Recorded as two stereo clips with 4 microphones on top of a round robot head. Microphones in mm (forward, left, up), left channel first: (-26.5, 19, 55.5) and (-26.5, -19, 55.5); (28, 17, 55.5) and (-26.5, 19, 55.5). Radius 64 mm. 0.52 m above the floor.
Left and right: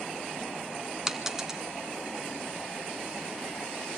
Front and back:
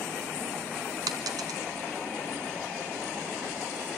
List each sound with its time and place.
1.1 s a dropped coin: 170° right, 1.1 m